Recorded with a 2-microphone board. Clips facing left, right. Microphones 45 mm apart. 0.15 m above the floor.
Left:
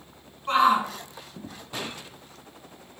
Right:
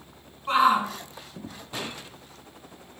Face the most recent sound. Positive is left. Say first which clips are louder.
# even
turn(degrees=0)  # may be behind; listen again after turning